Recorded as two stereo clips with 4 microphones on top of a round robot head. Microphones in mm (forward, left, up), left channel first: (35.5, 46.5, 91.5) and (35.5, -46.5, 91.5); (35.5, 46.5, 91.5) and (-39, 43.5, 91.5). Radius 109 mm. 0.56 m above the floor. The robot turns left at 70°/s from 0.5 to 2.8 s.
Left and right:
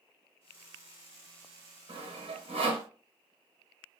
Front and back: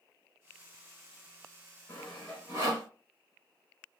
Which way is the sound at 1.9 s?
65° right.